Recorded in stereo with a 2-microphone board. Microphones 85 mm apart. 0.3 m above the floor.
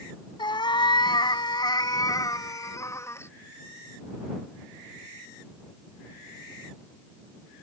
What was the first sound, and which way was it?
A cat meowing, 65° left (ahead or behind).